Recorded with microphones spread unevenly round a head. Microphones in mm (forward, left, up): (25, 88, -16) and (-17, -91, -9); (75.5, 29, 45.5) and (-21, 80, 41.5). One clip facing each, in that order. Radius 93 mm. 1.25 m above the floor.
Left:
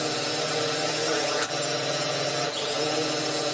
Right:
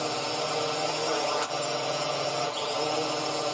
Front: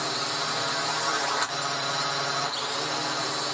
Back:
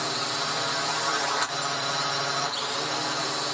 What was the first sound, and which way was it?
A drone, 65° left.